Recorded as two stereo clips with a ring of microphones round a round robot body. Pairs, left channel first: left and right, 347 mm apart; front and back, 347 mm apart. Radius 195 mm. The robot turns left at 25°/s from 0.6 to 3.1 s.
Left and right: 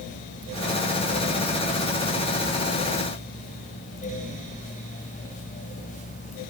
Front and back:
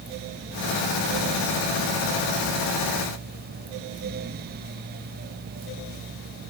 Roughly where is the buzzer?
I don't hear a buzzer.